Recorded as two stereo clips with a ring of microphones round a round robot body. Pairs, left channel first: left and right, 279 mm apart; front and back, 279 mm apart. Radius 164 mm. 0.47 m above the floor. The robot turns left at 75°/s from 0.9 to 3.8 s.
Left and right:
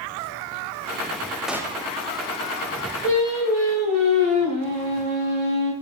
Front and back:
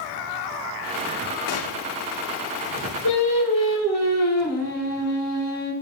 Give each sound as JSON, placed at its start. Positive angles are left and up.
{"t": 1.5, "sound": "a gunshot", "azimuth_deg": 0, "distance_m": 0.8}
{"t": 3.0, "sound": "singing", "azimuth_deg": 0, "distance_m": 3.5}